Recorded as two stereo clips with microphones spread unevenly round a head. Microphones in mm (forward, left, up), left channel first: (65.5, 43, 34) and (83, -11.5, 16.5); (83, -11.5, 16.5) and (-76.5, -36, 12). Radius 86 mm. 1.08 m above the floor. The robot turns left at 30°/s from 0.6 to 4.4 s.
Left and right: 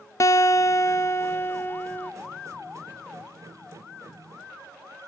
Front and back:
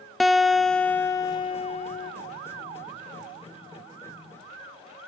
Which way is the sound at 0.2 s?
100° left.